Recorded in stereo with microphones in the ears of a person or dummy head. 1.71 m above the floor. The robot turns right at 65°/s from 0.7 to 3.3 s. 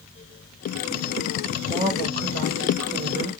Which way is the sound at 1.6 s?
170° right.